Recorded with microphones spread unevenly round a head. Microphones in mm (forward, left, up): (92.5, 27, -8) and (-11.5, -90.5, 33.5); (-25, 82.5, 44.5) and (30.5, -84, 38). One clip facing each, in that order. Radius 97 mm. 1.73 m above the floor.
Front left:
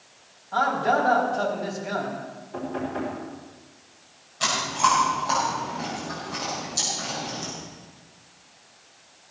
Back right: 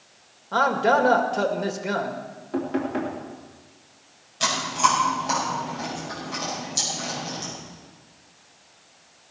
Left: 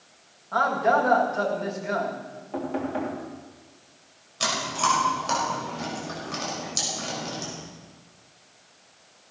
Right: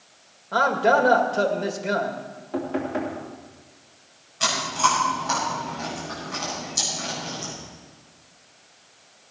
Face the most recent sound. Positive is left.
turn(degrees=160)